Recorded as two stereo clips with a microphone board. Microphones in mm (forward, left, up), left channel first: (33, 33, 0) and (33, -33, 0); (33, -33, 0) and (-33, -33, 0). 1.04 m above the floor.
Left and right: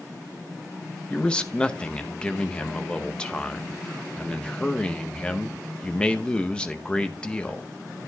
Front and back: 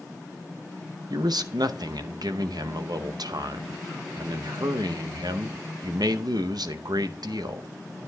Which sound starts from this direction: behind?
A man speaking, at 1.1 s.